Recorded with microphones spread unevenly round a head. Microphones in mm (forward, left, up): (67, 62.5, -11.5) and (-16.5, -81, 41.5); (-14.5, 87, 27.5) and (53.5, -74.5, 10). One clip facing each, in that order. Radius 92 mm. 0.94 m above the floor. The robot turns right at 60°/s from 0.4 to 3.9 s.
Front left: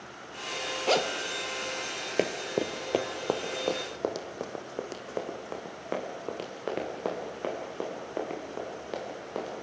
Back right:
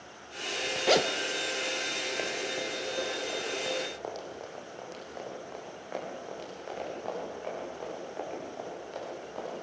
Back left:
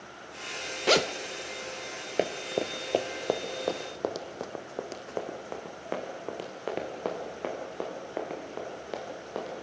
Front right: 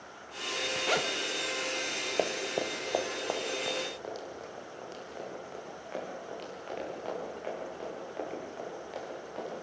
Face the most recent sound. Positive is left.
turn(degrees=90)